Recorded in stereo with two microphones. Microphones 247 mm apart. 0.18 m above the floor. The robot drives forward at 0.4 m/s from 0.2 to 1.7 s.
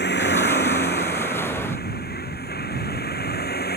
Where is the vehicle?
45° left (ahead or behind); by 3.8 s 40° left (ahead or behind).